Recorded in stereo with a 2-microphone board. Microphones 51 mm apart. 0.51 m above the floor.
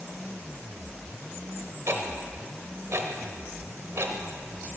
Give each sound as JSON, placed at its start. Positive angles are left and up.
{"t": 1.9, "sound": "ticking", "side_deg": -60, "distance_m": 0.7}